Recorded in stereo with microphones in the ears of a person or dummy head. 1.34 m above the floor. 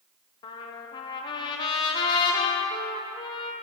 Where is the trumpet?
25° left (ahead or behind), 0.6 m.